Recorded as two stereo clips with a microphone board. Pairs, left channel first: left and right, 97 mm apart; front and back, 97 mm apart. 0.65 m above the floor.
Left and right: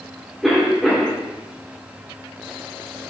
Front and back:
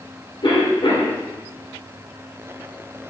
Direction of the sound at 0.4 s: Straight ahead.